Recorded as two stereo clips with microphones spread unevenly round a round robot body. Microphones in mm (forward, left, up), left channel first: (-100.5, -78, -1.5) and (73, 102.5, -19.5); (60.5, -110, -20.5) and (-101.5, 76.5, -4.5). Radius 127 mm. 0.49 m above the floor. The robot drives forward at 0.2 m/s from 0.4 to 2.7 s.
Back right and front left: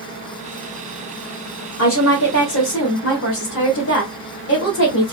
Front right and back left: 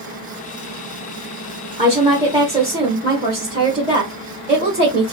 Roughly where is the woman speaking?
Behind.